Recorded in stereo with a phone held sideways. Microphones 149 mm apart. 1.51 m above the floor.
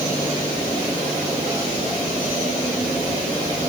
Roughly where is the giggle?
I don't hear a giggle.